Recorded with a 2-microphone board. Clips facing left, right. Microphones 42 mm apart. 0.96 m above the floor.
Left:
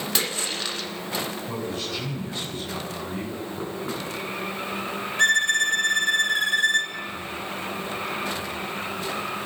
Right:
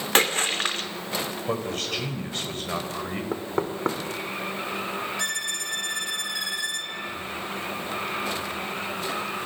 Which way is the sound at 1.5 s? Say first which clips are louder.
Right 2 dB; 65° right (ahead or behind).